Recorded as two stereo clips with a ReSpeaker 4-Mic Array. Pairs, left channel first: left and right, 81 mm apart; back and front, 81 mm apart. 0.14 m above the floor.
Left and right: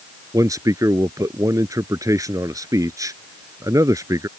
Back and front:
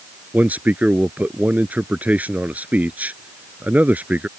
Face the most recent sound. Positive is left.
turn(degrees=-65)